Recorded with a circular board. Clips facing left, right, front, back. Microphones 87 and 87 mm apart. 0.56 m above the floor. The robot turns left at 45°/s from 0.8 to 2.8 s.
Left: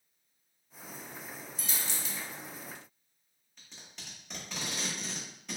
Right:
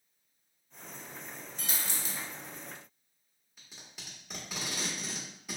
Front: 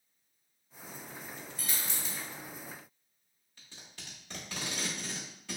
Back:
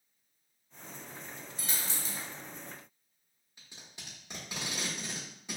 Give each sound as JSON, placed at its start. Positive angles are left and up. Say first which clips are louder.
{"t": 1.6, "sound": "a dropped coin", "louder": "right 1 dB, back 1 dB", "azimuth_deg": -115, "distance_m": 0.5}
{"t": 3.6, "sound": "tape being pulled", "louder": "even, even", "azimuth_deg": -165, "distance_m": 1.1}